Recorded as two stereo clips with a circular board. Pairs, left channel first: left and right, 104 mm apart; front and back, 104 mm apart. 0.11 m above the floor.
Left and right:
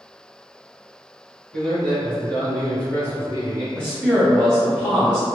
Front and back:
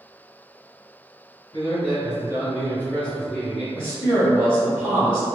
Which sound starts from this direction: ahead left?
A man speaking, at 3.8 s.